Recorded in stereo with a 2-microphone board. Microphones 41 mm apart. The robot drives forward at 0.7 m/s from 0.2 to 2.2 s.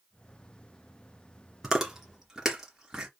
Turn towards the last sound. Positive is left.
turn(degrees=-10)  # may be behind; listen again after turning